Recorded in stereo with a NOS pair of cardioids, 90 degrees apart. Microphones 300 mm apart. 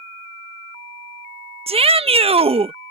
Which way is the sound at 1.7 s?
20° right.